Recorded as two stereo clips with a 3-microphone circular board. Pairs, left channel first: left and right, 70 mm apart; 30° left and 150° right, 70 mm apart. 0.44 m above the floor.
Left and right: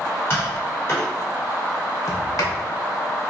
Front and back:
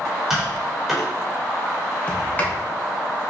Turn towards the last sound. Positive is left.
turn(degrees=90)